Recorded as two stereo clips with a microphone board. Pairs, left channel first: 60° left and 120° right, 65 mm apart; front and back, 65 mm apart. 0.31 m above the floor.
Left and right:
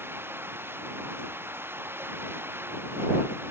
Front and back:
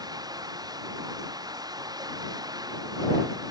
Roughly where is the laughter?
No laughter in this recording.